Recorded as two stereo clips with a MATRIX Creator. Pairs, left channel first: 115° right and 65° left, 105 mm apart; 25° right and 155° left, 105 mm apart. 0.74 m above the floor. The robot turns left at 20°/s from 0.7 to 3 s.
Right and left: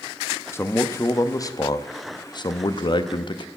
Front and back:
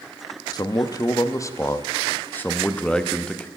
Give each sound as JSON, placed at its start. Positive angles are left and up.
{"t": 0.5, "sound": "a man speaking", "azimuth_deg": -55, "distance_m": 0.6}